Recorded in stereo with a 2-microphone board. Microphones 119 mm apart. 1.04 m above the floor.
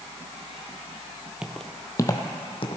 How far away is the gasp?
I don't hear a gasp.